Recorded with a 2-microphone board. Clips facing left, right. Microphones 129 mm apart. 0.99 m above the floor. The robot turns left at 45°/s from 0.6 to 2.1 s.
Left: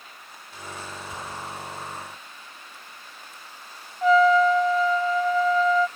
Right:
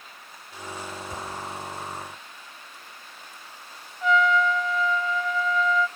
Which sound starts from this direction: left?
A trumpet, at 4.0 s.